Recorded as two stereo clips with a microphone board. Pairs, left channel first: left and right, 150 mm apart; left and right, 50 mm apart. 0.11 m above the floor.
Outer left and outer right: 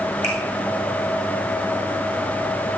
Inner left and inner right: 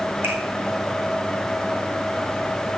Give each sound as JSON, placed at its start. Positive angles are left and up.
{"t": 0.2, "sound": "a finger snap", "side_deg": -45, "distance_m": 5.0}